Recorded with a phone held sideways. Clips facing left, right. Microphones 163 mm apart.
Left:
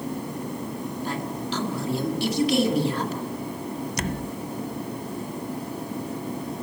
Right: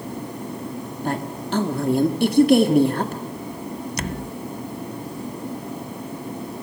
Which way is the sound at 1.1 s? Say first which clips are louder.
Right 6 dB; 55° right (ahead or behind).